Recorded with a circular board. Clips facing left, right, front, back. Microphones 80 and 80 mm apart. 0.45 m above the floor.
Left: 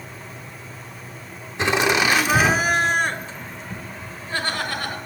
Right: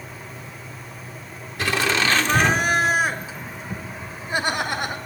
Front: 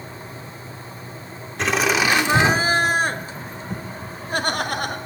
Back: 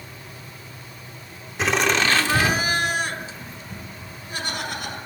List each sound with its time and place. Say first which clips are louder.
1.6 s laughter: left 3 dB, front 1 dB; 95° left, 0.8 m; by 5.0 s 20° right, 1.7 m